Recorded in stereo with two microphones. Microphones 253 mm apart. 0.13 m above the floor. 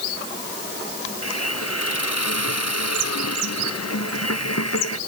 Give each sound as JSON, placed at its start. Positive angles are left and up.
{"t": 1.2, "sound": "a hiss", "side_deg": 80}